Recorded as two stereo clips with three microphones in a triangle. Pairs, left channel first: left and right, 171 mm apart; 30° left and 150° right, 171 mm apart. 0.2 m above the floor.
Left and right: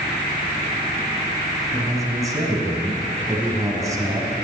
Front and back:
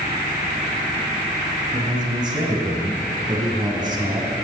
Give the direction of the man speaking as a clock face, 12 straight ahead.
4 o'clock.